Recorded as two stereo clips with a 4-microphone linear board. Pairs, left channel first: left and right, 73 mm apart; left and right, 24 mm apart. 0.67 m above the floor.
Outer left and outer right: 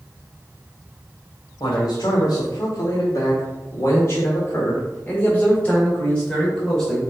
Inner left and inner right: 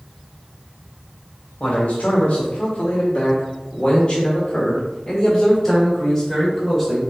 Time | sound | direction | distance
1.6 | a man speaking | 70° left (ahead or behind) | 1.8 m